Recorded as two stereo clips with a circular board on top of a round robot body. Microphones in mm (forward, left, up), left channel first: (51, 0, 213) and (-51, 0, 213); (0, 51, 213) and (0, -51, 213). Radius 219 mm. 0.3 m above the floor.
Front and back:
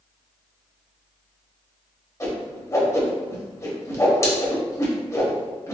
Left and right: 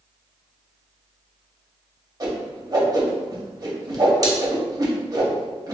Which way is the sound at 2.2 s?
50° right.